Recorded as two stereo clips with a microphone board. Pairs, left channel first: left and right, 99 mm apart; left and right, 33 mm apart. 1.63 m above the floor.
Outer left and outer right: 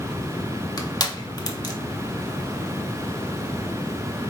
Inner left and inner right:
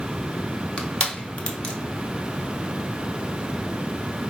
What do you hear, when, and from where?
0.8 s crushing: 40° left (ahead or behind), 0.8 m